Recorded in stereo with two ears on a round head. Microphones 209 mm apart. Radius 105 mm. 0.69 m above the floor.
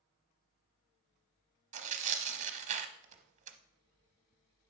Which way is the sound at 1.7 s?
30° right (ahead or behind).